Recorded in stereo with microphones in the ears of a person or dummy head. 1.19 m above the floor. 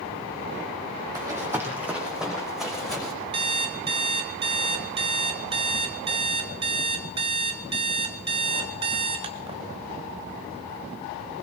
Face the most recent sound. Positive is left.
turn(degrees=-25)  # may be behind; listen again after turning